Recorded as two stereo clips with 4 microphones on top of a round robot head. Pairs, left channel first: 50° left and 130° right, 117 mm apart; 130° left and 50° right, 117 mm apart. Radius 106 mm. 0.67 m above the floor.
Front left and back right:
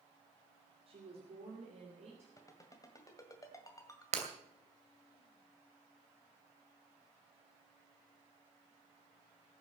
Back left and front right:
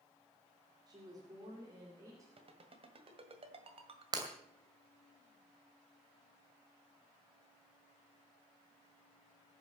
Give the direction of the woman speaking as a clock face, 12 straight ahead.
3 o'clock.